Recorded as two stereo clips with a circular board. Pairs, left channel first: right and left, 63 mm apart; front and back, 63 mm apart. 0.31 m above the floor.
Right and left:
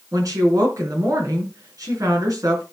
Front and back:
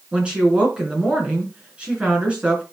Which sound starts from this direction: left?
A woman speaking, at 0.1 s.